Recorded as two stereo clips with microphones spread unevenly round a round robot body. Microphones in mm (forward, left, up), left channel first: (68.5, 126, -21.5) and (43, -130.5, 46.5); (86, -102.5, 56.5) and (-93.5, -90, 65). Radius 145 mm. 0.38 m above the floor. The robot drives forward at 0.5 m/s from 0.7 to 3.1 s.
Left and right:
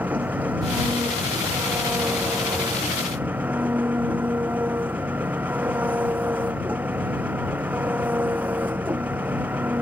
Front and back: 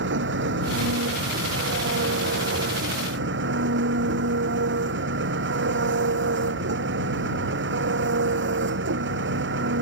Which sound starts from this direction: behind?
An engine running, at 0.0 s.